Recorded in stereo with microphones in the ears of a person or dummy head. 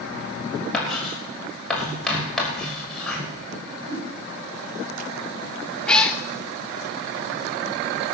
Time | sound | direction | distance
0.7 | writing | 5° left (ahead or behind) | 5.5 m
3.6 | a whoosh | 70° right (ahead or behind) | 3.5 m
5.9 | a cat meowing | 5° left (ahead or behind) | 0.7 m